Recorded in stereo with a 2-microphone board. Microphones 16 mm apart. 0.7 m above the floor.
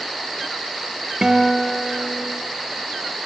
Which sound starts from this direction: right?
A guitar, at 1.2 s.